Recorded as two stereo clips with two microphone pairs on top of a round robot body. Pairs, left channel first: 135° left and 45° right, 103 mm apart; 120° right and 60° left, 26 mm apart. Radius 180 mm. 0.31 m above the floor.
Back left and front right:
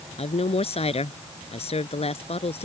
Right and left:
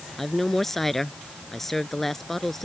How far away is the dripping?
I don't hear dripping.